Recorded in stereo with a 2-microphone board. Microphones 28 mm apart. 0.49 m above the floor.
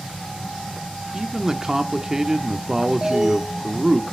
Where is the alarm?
20° right (ahead or behind), 2 m.